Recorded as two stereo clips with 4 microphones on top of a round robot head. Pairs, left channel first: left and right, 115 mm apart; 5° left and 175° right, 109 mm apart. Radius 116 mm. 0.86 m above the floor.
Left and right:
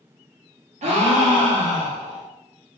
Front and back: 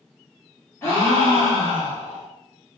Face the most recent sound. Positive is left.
turn(degrees=-70)